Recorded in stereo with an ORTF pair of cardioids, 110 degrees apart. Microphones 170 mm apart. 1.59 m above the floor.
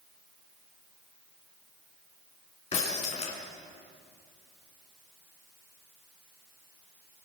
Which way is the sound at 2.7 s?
40° left.